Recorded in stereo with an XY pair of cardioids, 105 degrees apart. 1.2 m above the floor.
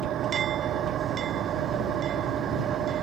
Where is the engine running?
65° right.